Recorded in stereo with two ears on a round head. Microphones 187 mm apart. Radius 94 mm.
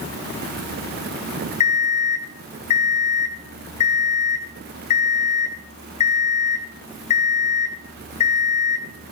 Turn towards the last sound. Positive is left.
turn(degrees=35)  # may be behind; listen again after turning